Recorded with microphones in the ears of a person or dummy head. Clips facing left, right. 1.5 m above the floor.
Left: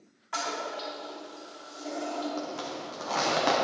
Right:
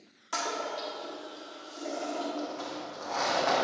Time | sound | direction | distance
0.3 | a toilet flushing | 40° right (ahead or behind) | 1.3 m
2.4 | a zipper | 45° left (ahead or behind) | 1.1 m